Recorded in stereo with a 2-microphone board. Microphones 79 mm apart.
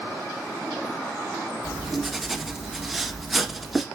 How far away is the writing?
About 1.3 m.